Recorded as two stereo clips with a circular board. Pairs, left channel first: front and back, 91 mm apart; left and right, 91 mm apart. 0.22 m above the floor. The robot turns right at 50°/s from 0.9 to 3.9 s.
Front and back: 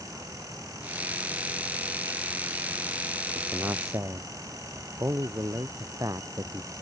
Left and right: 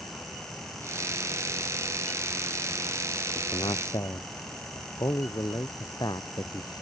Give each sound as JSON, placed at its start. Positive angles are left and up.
{"t": 3.4, "sound": "a man speaking", "azimuth_deg": 100}